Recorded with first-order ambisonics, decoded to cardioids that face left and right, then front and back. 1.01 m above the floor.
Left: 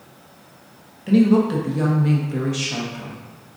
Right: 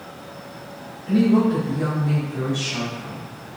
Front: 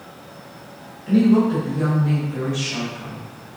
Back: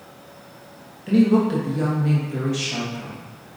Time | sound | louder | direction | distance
1.1 | a woman speaking | left 2 dB, front 1 dB | 110° left | 1.0 m